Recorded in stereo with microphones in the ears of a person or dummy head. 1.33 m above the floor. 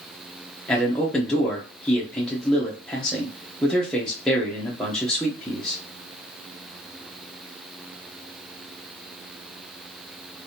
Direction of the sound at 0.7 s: Centre (ahead or behind).